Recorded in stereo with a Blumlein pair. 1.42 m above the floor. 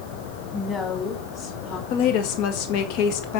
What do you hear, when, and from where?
0.5 s a woman speaking: 20° left, 3.5 m; by 1.8 s 45° left, 4 m
1.9 s a woman speaking: 45° left, 1.7 m